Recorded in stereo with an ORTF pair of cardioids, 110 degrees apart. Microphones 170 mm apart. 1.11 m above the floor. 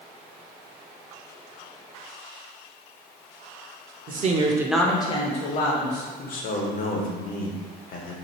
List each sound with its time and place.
4.1 s a woman speaking: 50° right, 0.8 m; by 6.1 s 60° left, 1.4 m
6.2 s a man speaking: 55° left, 0.9 m